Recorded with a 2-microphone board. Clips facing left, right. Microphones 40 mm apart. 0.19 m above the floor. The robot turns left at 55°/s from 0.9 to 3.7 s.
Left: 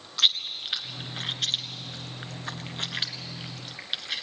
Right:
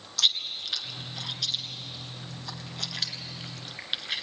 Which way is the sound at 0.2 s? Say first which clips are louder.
Left 2 dB; 30° left (ahead or behind).